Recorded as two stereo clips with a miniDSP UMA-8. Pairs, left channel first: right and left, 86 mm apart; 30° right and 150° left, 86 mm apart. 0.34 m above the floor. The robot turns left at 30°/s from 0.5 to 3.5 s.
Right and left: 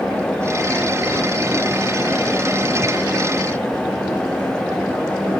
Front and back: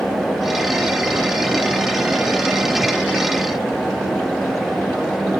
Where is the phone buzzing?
I don't hear a phone buzzing.